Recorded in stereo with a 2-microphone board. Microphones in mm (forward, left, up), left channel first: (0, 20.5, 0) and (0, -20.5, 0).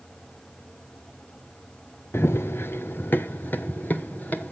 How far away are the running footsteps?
About 0.7 m.